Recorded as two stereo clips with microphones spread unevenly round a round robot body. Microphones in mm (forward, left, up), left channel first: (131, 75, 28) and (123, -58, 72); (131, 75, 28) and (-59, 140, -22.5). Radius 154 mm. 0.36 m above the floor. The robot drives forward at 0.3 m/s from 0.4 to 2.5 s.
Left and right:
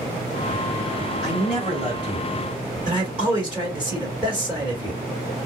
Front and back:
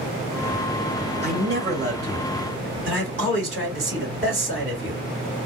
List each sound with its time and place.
1.2 s a man speaking: 165° left, 1.9 m; by 5.0 s 170° left, 2 m